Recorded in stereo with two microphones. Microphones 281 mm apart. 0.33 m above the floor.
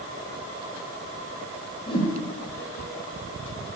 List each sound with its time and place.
1.9 s a whoosh: 15° left (ahead or behind), 1.6 m